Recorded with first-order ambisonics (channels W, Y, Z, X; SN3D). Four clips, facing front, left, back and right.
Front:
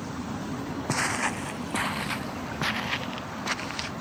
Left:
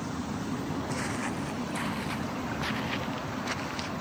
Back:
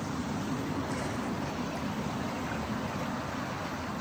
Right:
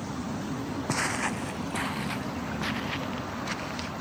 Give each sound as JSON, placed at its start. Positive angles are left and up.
{"t": 0.9, "sound": "footsteps", "azimuth_deg": -35}